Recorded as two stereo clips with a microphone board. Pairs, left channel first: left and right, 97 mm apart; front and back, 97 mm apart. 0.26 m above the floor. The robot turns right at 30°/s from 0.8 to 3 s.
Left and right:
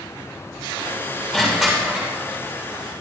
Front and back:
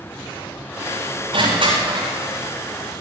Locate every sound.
1.3 s crushing: 170° left, 8 m; by 2.1 s 165° right, 8 m